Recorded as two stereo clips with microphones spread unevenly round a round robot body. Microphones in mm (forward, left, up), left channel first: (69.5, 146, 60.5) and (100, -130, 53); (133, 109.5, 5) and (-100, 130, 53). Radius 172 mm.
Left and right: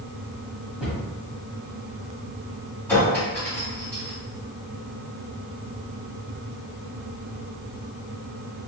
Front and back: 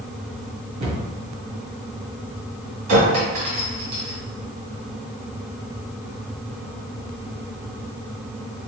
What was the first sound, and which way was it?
A cupboard door, 170° right.